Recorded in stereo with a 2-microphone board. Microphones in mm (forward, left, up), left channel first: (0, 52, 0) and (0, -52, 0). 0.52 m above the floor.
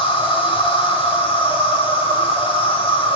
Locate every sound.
0.0 s an insect: 60° left (ahead or behind), 2 m